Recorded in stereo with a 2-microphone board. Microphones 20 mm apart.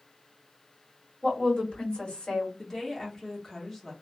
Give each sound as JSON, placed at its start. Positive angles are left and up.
{"t": 1.2, "sound": "a woman speaking", "side_deg": 50, "distance_m": 1.9}
{"t": 2.6, "sound": "a woman speaking", "side_deg": 20, "distance_m": 1.0}